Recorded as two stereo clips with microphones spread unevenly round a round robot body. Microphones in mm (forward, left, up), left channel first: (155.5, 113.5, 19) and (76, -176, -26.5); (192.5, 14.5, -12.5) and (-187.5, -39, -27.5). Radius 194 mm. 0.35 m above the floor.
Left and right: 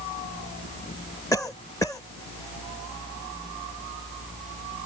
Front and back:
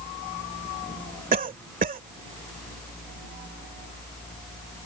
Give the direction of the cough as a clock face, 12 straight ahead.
7 o'clock.